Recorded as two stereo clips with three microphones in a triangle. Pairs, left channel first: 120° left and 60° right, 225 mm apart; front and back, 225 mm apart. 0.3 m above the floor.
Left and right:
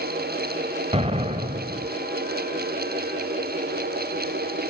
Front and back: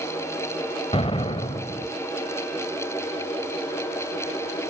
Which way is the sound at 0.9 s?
35° right.